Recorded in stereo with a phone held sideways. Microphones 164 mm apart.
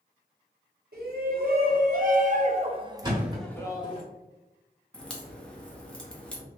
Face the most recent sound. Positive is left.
turn(degrees=5)  # may be behind; listen again after turning